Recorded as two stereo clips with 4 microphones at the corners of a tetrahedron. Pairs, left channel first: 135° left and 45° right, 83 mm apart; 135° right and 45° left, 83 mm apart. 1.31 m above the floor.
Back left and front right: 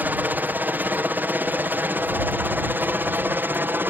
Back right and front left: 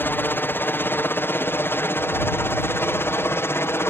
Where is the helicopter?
90° right; by 3.9 s 95° right.